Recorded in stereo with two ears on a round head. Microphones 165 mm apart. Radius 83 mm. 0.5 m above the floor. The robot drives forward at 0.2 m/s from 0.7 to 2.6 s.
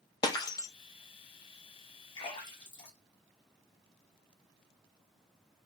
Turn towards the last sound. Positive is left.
turn(degrees=25)  # may be behind; listen again after turning